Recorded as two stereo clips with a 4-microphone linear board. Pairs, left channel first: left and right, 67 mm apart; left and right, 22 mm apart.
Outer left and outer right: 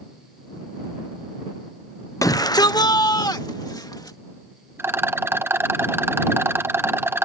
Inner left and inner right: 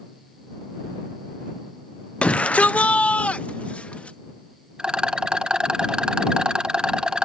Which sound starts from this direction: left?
A shout, at 2.2 s.